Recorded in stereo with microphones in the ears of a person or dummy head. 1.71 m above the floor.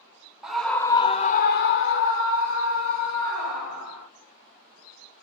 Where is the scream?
Centre (ahead or behind), 0.6 m; by 4.1 s 65° left (ahead or behind), 1.7 m.